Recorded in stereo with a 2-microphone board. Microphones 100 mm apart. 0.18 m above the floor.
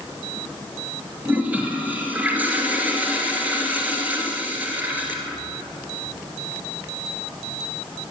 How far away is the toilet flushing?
About 2 m.